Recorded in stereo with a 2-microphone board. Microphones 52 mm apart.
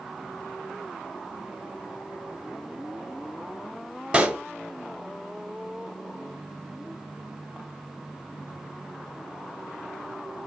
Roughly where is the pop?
Right.